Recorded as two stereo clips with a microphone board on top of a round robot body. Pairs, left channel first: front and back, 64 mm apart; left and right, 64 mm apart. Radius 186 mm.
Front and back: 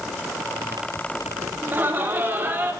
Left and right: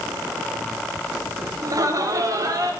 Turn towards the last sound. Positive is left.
turn(degrees=-120)